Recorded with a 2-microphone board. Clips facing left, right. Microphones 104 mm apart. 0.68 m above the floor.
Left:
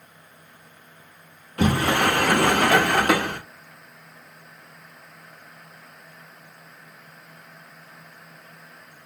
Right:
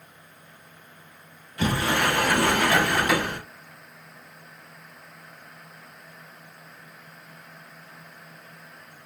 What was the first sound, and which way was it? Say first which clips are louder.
A sliding door: left 4 dB; 60° left (ahead or behind).